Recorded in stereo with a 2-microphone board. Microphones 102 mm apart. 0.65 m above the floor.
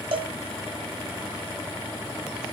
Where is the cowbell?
60° right (ahead or behind), 0.7 m.